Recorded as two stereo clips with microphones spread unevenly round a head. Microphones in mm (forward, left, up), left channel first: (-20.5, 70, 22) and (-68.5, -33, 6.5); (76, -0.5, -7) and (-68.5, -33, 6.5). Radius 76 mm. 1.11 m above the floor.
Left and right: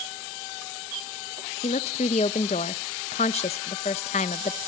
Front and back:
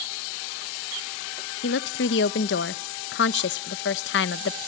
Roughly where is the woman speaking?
Ahead.